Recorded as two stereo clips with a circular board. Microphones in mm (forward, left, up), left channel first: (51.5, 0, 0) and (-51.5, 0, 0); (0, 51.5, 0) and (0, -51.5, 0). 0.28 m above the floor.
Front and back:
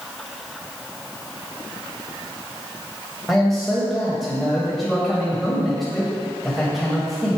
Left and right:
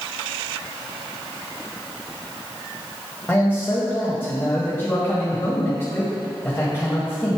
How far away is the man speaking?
About 1.6 m.